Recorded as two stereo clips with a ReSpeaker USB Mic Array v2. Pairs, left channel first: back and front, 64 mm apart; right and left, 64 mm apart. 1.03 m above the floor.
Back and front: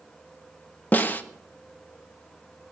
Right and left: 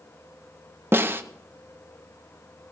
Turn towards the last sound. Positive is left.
turn(degrees=130)